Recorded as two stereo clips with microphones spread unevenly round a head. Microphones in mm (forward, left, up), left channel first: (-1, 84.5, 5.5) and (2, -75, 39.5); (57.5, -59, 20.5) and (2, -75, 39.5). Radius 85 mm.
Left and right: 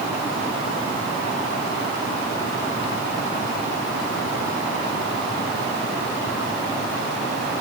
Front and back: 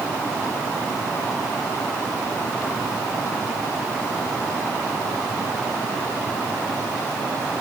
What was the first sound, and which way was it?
Only background noise.